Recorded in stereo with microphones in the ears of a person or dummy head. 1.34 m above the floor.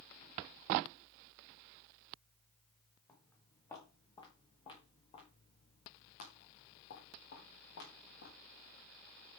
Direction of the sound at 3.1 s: 15° left (ahead or behind).